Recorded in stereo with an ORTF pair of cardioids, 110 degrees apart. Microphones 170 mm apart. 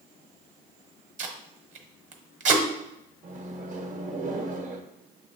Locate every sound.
1.2 s tape being pulled: 45° right, 1.0 m
3.2 s a microwave: 50° right, 0.8 m